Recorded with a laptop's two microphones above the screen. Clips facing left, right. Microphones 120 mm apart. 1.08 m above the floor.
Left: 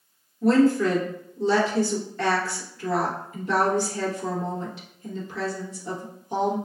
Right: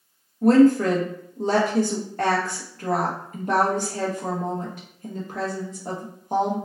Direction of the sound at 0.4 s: 50° right (ahead or behind).